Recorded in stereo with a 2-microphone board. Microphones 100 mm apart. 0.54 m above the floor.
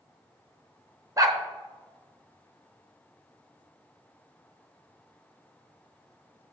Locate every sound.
1.2 s a dog barking: 35° right (ahead or behind), 0.7 m